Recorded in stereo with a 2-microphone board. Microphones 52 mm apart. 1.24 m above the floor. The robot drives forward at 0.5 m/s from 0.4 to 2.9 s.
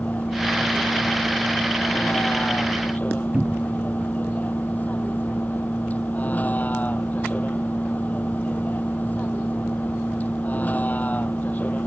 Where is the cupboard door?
20° right (ahead or behind).